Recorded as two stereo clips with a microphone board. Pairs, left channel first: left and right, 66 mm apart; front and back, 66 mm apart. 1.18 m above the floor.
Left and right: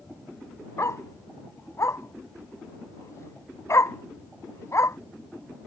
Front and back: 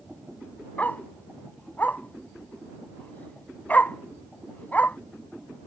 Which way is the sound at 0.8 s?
60° left.